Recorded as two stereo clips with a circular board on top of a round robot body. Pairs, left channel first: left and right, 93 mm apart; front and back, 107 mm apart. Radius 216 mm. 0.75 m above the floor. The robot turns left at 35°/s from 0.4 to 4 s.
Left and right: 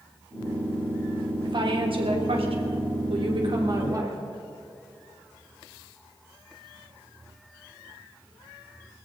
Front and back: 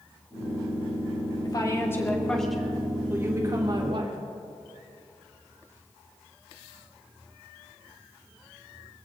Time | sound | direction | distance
1.4 | a woman speaking | 50° right | 3 m